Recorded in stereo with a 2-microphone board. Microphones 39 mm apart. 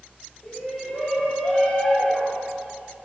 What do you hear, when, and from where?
0.4 s a shout: 45° left (ahead or behind), 5.5 m; by 2.4 s 30° left (ahead or behind), 5.5 m